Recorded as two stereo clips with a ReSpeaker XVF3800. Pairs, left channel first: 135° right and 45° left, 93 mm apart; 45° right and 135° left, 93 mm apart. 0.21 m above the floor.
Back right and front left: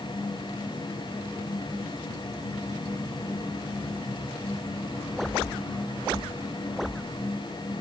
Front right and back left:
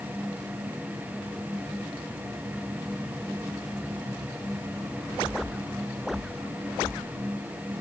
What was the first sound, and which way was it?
Only background noise.